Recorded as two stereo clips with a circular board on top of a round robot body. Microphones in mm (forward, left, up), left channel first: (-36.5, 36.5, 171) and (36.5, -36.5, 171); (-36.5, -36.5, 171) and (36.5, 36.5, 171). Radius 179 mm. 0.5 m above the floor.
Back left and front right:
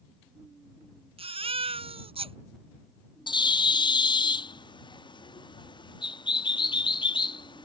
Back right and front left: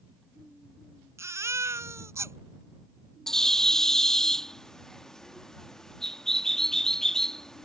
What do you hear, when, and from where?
1.2 s a baby crying: 20° right
3.3 s a bird: 140° left